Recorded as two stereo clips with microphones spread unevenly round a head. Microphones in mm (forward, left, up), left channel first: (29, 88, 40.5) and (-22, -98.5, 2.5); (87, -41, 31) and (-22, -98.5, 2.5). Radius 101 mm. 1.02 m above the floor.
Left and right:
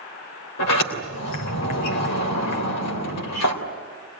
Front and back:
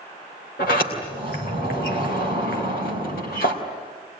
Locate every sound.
0.6 s a sliding door: 75° left, 3 m